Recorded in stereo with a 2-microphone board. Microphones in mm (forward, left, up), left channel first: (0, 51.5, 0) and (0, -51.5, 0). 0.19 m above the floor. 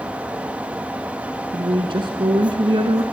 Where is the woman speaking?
55° right (ahead or behind), 1.8 m.